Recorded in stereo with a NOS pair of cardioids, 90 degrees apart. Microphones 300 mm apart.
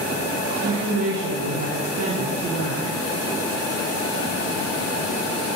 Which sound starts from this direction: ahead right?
A woman speaking, at 0.6 s.